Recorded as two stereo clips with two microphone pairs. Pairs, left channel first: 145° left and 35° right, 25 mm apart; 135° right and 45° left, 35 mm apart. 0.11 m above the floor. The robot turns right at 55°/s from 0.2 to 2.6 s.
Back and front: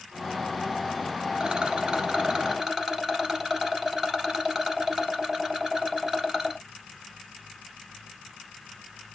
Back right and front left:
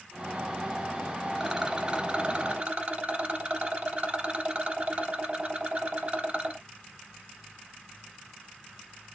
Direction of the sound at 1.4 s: 40° right.